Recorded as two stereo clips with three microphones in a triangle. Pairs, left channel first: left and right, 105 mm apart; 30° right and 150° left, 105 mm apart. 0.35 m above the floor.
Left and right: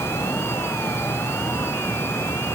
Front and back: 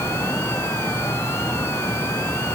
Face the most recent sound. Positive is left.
No sound to turn to.